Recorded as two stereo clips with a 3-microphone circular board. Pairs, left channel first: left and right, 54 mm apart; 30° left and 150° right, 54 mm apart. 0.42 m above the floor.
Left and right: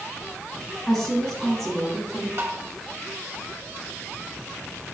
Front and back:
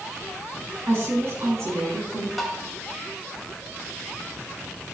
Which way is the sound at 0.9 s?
175° left.